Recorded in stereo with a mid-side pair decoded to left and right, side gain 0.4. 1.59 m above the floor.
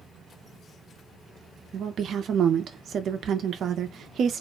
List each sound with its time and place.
1.7 s a woman speaking: 65° right, 0.5 m